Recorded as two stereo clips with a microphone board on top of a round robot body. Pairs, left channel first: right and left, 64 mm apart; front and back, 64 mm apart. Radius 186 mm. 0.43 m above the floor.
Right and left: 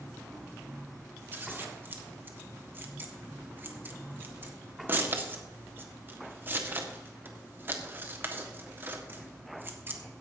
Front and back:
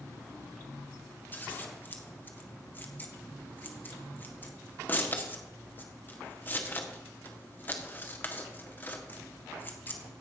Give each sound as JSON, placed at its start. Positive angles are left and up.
{"t": 1.3, "sound": "scissors", "azimuth_deg": 45, "distance_m": 1.8}